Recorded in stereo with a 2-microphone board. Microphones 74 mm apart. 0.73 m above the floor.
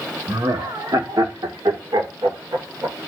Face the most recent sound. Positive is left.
turn(degrees=-70)  # may be behind; listen again after turning